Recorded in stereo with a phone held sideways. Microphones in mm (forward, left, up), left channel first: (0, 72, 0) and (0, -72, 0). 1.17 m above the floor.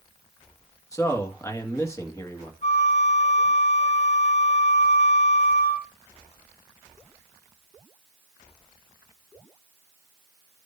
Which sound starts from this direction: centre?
A man speaking, at 0.9 s.